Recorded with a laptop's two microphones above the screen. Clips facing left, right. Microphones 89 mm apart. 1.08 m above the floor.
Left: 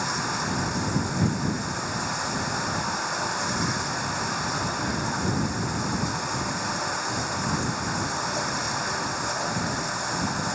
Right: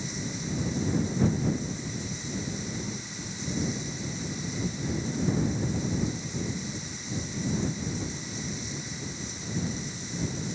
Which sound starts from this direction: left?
Running water, at 0.0 s.